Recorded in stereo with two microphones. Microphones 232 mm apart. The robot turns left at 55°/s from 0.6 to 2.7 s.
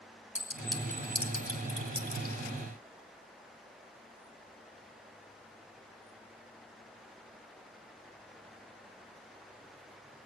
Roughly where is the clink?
Centre.